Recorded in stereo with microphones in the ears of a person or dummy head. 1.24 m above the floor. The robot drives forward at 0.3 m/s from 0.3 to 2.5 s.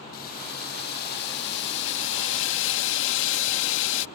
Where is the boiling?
50° left (ahead or behind); by 4.1 s 70° left (ahead or behind).